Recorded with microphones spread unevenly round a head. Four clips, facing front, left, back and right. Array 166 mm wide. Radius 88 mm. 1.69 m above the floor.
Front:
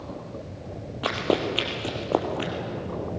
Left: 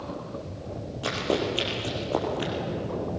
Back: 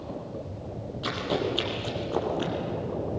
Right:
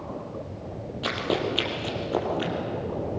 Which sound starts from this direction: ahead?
Running footsteps, at 1.0 s.